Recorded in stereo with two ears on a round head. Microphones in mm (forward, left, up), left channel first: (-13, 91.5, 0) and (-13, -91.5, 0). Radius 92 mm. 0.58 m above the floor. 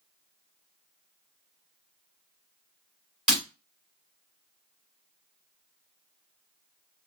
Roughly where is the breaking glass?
Centre.